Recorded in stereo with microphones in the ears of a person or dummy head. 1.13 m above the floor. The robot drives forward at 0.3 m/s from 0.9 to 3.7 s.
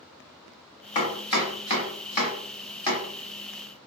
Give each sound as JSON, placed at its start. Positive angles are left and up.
{"t": 0.9, "sound": "chopping", "side_deg": 20, "distance_m": 1.0}